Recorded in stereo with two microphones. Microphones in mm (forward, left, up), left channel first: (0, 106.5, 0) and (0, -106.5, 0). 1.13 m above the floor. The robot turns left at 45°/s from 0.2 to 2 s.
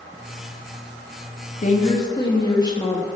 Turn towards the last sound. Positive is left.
turn(degrees=20)  # may be behind; listen again after turning